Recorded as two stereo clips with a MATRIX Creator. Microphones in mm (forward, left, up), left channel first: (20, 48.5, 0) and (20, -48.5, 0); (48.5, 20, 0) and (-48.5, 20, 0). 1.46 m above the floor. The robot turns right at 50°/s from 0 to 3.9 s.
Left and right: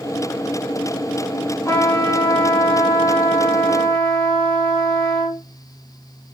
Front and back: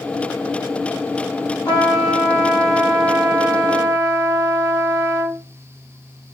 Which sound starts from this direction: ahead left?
A trumpet, at 1.6 s.